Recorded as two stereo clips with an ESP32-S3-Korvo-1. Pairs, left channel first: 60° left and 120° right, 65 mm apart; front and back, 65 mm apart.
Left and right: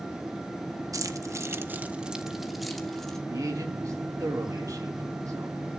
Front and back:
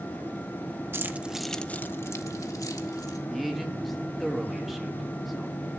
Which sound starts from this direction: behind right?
Keys jangling, at 0.9 s.